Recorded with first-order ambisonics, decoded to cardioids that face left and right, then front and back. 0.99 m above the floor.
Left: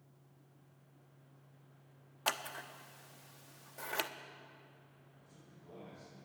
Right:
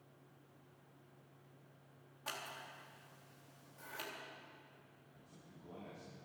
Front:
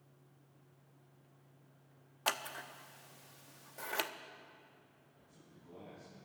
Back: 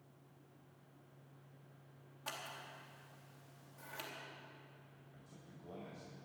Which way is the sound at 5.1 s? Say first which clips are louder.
Right 1 dB, back 3 dB; straight behind.